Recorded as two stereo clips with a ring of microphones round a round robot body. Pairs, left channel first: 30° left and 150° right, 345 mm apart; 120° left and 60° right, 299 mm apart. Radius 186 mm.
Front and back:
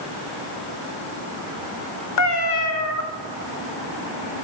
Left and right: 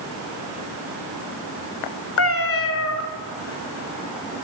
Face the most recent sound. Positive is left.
turn(degrees=75)